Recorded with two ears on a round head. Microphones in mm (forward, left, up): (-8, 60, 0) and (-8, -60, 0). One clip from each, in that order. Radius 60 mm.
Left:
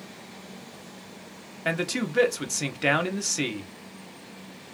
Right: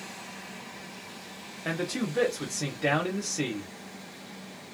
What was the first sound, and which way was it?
A man speaking, 45° left (ahead or behind).